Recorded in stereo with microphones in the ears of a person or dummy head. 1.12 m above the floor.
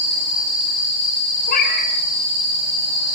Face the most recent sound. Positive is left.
turn(degrees=45)  # may be behind; listen again after turning